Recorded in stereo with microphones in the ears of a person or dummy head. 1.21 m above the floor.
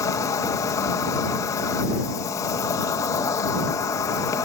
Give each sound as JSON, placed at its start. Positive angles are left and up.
{"t": 0.0, "sound": "an insect", "side_deg": 15}